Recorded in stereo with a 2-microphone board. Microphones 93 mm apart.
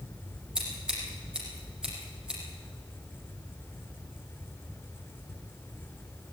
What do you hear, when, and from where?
0.6 s scissors: 10° right (ahead or behind), 7 m